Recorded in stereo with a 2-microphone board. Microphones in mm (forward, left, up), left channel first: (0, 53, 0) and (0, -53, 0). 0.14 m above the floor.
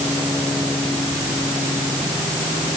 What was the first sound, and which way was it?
Only background noise.